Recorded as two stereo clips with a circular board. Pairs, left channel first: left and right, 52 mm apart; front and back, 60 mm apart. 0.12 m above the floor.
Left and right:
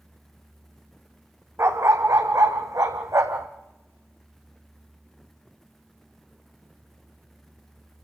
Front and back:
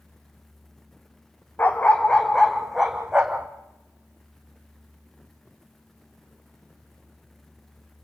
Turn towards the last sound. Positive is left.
turn(degrees=-110)